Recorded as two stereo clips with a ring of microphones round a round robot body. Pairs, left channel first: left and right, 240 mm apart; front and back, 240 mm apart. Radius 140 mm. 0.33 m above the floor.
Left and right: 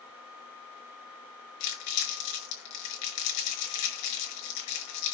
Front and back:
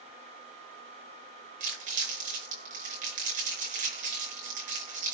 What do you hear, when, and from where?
1.6 s crumpling: 115° left, 5 m